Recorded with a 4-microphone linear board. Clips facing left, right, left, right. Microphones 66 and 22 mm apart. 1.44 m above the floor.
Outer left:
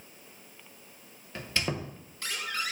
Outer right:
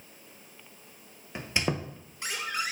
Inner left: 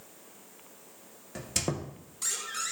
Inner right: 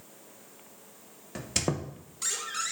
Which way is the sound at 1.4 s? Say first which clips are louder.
Outer right 2 dB, inner right 2 dB; 20° right (ahead or behind).